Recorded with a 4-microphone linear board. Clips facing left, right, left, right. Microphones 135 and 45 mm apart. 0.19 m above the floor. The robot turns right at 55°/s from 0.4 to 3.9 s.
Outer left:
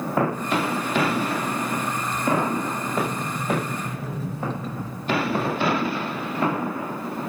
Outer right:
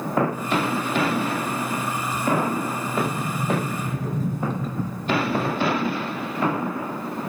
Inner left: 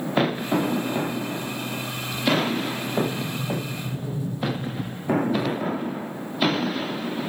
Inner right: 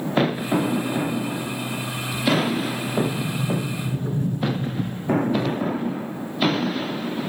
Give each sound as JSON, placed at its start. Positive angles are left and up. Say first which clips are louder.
{"t": 3.0, "sound": "a sliding door", "louder": "outer right 1 dB, inner right 3 dB", "azimuth_deg": -115, "distance_m": 1.1}